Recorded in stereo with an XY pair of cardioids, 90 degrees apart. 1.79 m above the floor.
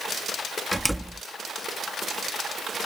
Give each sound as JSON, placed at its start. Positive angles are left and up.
{"t": 0.7, "sound": "a door slam", "azimuth_deg": -10}